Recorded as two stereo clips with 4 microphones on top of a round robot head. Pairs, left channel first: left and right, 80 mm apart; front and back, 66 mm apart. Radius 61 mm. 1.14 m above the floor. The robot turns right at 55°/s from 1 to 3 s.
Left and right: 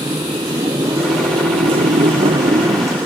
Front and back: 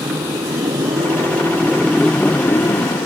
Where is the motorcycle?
145° right; by 3.1 s 35° right.